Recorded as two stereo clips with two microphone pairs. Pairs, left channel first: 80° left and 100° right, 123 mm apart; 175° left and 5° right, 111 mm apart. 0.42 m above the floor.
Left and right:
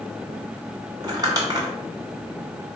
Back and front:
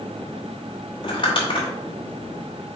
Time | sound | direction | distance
1.0 | crumpling | 150° right | 1.3 m